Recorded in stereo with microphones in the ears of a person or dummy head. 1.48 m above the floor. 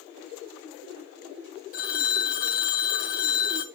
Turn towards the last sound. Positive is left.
turn(degrees=40)  # may be behind; listen again after turning